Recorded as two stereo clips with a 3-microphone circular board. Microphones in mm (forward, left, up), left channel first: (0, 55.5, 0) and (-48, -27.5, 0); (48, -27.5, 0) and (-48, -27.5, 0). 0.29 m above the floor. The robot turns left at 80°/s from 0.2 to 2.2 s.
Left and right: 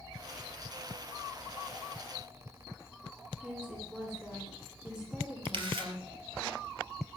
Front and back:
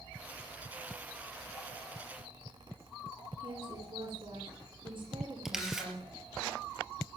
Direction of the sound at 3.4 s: 160° left.